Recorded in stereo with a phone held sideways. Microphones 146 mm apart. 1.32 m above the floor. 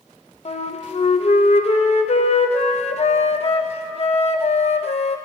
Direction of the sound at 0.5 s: 45° left (ahead or behind).